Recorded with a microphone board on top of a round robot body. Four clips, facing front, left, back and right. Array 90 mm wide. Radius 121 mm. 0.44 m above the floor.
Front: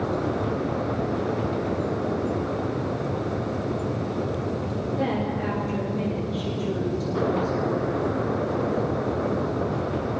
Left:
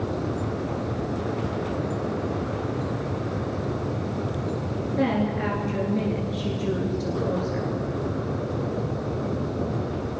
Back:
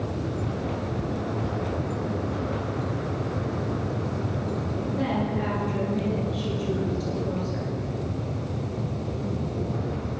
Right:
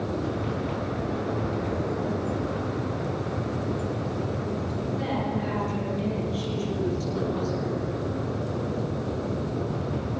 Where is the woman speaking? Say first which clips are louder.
Left 7 dB, even; 90° left, 9.5 m.